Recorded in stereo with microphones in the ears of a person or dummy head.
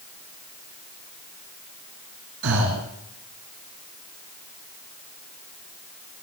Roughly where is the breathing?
Right.